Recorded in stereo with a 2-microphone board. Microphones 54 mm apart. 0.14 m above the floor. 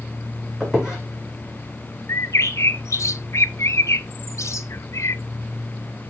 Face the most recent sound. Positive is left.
turn(degrees=65)  # may be behind; listen again after turning